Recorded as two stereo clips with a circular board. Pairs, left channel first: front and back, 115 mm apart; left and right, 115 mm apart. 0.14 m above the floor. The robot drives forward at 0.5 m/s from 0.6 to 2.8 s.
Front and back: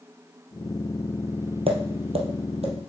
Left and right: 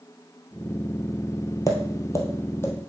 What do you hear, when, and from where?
1.7 s tapping: 150° left, 1.5 m; by 2.9 s 160° left, 2 m